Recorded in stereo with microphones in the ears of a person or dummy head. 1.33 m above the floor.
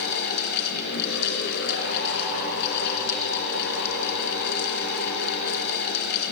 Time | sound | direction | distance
0.0 | a fan | 60° left (ahead or behind) | 2.5 m